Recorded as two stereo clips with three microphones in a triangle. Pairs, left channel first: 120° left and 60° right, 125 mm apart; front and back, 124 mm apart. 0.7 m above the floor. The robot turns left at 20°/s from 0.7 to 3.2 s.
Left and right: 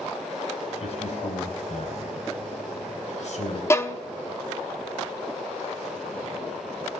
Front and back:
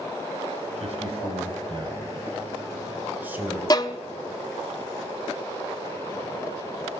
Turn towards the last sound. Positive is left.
turn(degrees=55)